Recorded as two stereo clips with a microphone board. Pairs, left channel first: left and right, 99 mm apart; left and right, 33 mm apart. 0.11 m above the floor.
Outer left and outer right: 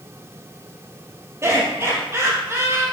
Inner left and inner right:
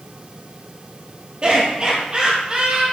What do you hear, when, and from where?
1.4 s laughter: 30° right (ahead or behind), 2.5 m